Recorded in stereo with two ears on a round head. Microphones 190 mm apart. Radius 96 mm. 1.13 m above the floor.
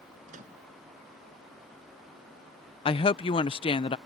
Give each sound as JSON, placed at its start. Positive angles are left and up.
{"t": 0.3, "sound": "a microwave", "side_deg": -35}
{"t": 2.9, "sound": "a woman speaking", "side_deg": 25}